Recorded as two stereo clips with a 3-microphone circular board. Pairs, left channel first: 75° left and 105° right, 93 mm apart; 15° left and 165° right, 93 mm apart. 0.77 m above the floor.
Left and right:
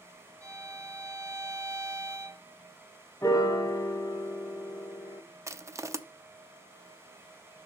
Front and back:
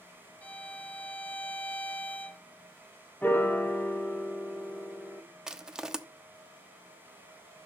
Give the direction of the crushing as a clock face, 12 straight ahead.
3 o'clock.